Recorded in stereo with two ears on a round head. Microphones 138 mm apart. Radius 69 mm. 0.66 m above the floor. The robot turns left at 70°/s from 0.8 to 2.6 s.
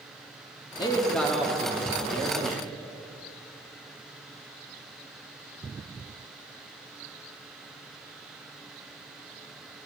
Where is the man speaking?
35° left, 1.3 m; by 2.7 s 90° right, 1.3 m.